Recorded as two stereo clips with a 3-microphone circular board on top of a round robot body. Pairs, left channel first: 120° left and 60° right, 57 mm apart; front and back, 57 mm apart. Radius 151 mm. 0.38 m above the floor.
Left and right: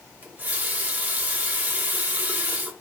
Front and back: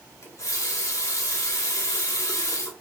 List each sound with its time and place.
0.2 s a running tap: 5° right, 1.1 m